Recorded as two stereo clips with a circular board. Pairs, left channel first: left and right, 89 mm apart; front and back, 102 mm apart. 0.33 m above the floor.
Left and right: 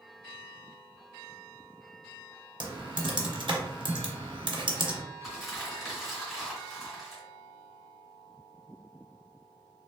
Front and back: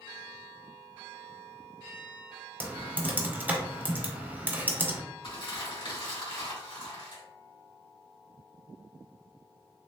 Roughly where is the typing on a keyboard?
Right.